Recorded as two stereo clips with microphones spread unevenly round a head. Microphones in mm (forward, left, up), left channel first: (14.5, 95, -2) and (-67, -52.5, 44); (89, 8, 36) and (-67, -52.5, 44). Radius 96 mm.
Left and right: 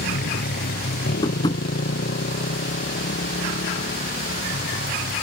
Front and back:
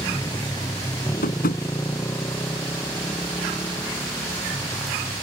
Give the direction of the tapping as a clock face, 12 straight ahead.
12 o'clock.